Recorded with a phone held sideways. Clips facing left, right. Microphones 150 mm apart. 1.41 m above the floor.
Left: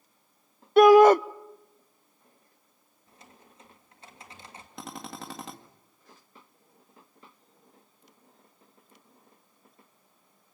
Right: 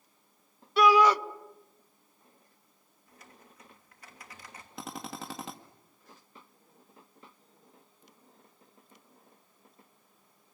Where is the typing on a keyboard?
25° left (ahead or behind), 3 m.